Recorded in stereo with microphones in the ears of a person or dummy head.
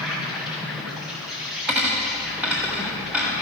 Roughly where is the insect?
Centre.